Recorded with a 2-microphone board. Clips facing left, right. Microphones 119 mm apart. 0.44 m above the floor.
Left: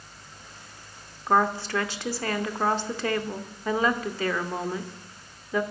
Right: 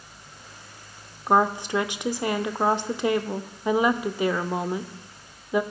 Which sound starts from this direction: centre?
A woman speaking, at 1.3 s.